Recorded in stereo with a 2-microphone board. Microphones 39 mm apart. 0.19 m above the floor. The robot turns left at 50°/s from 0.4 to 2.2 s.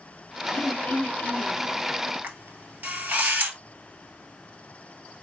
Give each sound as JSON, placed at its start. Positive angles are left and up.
{"t": 0.5, "sound": "throat clearing", "azimuth_deg": 120, "distance_m": 0.8}
{"t": 2.2, "sound": "a camera shutter", "side_deg": -60, "distance_m": 1.2}